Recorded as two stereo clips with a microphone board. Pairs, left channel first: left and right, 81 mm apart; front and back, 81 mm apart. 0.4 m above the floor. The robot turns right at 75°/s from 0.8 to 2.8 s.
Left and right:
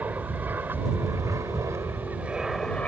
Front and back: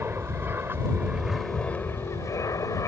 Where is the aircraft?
140° right; by 2.9 s 20° left.